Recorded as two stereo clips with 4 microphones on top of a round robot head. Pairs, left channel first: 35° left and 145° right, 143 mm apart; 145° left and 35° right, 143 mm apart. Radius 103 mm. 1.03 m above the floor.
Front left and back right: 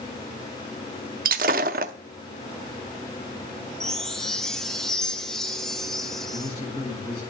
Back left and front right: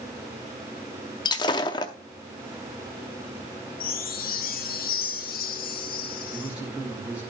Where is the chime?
125° left, 1.3 m.